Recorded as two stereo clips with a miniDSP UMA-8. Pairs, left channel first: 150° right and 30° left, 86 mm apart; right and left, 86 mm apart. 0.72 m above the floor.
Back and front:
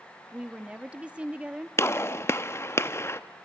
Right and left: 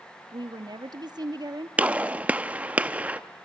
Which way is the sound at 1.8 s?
160° left.